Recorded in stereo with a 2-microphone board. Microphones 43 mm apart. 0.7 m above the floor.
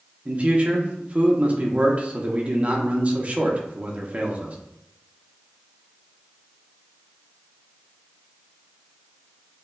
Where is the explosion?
No explosion in this recording.